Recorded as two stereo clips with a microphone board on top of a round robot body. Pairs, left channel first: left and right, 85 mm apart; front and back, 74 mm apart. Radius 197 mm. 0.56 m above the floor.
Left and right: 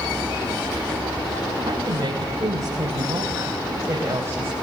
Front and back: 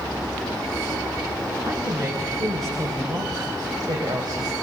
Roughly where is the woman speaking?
Behind right.